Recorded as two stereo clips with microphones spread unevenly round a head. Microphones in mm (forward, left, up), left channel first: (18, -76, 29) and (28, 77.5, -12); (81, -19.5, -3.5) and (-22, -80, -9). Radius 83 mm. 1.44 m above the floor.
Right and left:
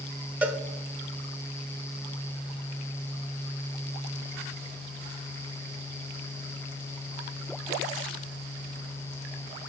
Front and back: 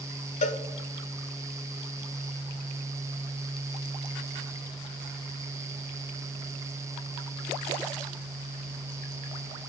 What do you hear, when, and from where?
0.4 s a cowbell: 10° left, 1.0 m